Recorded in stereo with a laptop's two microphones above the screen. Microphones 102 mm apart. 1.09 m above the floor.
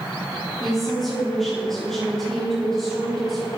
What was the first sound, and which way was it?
A woman speaking, 5° left (ahead or behind).